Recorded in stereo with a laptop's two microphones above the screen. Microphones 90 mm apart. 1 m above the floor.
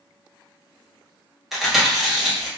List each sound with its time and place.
1.5 s chewing: 5° right (ahead or behind), 0.9 m